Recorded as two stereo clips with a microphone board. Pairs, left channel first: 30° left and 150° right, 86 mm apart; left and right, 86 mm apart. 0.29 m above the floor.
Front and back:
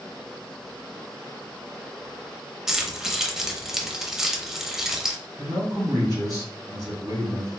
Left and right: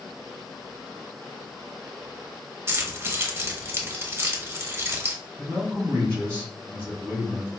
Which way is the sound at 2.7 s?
70° right.